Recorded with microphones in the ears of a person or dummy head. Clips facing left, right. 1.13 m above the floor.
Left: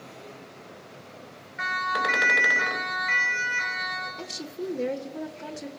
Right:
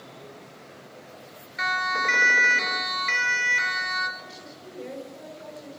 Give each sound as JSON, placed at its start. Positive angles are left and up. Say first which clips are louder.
{"t": 1.6, "sound": "a siren", "louder": "even", "side_deg": -45, "distance_m": 4.0}
{"t": 4.2, "sound": "a woman speaking", "louder": "left 9 dB", "side_deg": 75, "distance_m": 1.5}